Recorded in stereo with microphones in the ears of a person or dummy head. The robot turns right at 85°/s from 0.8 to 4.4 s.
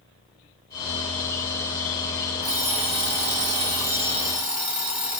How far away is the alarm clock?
About 1.0 m.